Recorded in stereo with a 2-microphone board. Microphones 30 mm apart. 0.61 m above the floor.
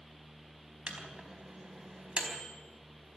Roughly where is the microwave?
Right.